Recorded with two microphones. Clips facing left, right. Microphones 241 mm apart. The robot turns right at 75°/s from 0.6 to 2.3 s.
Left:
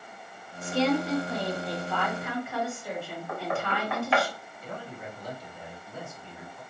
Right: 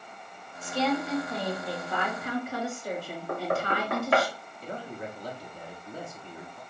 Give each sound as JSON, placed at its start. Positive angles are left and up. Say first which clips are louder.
{"t": 0.6, "sound": "a woman speaking", "louder": "left 3 dB", "azimuth_deg": 100, "distance_m": 3.0}
{"t": 3.3, "sound": "knocking", "louder": "right 3 dB", "side_deg": -55, "distance_m": 0.9}
{"t": 4.6, "sound": "a man speaking", "louder": "right 3 dB", "side_deg": -35, "distance_m": 2.5}